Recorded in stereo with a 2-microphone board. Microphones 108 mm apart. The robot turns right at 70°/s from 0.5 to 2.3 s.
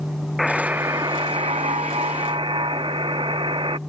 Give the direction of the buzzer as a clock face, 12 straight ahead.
6 o'clock.